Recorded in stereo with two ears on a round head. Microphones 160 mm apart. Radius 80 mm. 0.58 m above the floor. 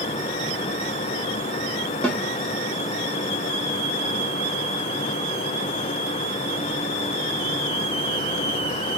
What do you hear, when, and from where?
2.0 s a snare drum: 10° left (ahead or behind), 1.0 m